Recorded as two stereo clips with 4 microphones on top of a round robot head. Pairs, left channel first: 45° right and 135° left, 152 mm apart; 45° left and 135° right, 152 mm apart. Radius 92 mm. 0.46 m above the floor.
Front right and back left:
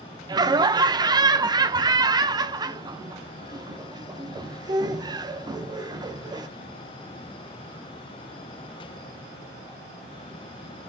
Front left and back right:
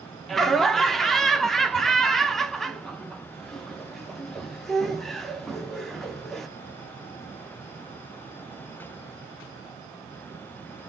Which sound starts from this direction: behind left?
Laughter, at 0.3 s.